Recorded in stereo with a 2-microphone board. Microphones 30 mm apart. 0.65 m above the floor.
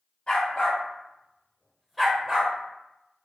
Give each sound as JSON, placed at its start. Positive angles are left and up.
{"t": 0.3, "sound": "a dog barking", "side_deg": 30, "distance_m": 1.7}